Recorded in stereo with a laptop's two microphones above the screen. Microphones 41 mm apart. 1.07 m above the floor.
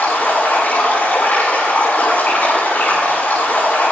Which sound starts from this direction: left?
Running water, at 0.0 s.